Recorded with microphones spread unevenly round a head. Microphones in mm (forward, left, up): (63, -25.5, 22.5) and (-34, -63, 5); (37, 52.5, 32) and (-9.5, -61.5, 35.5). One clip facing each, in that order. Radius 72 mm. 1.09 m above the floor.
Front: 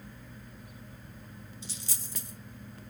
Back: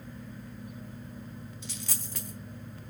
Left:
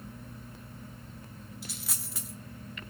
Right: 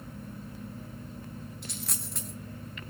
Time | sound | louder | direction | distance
1.6 | a dropped coin | back 4 dB, right 3 dB | 155° left | 0.9 m